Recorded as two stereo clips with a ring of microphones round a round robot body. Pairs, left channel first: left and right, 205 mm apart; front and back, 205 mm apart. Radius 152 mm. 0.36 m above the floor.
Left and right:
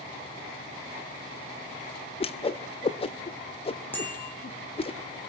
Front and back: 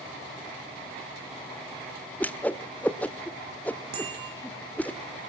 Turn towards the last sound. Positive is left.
turn(degrees=170)